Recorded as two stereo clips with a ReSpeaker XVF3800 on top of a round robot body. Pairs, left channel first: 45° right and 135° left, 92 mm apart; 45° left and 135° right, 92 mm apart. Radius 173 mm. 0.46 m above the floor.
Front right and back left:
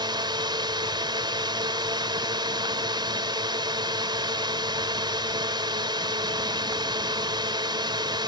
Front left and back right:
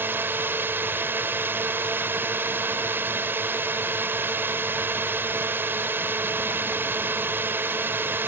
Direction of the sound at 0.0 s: 160° left.